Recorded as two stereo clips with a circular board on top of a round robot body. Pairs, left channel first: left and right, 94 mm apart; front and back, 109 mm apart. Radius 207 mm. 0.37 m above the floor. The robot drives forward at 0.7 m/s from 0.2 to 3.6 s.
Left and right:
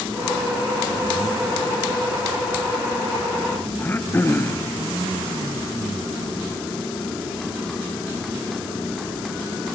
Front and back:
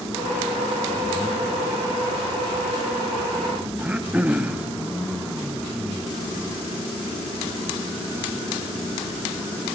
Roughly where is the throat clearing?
Behind left.